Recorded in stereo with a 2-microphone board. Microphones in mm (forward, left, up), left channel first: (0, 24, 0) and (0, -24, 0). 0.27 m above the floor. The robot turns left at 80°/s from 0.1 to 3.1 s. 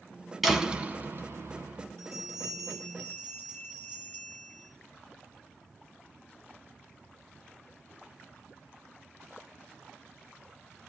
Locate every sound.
0.4 s a door slam: straight ahead, 1.8 m; by 1.9 s 115° right, 1.8 m
2.0 s a bell: 110° right, 7.5 m; by 4.7 s 160° left, 7.5 m